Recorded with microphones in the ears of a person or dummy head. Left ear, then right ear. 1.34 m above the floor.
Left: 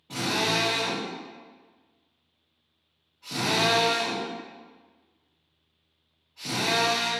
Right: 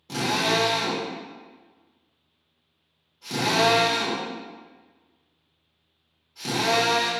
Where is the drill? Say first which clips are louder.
Right 2 dB; 80° right, 1.3 m.